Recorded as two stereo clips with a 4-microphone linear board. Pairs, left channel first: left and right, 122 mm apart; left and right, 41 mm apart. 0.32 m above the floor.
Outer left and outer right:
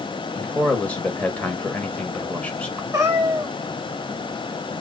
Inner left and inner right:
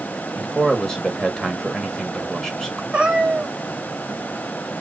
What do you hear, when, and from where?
0.3 s a man speaking: 10° left (ahead or behind), 1.5 m
2.9 s a cat meowing: 25° right (ahead or behind), 1.9 m